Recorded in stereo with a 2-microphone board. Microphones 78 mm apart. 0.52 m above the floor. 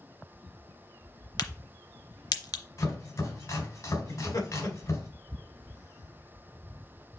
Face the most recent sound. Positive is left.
turn(degrees=50)  # may be behind; listen again after turning